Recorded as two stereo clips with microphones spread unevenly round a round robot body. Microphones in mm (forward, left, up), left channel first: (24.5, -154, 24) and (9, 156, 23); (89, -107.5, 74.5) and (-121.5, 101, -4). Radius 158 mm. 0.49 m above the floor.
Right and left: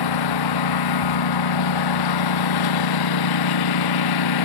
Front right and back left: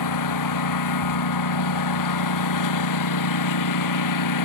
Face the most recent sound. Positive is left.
turn(degrees=-70)